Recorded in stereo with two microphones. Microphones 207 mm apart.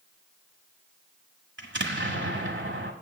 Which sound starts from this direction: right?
An explosion, at 1.6 s.